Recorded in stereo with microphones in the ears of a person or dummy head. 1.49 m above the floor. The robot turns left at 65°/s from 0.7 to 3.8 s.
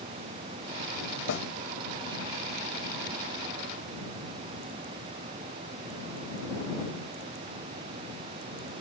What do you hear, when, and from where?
1.3 s a snare drum: 65° left (ahead or behind); by 1.4 s 75° left (ahead or behind)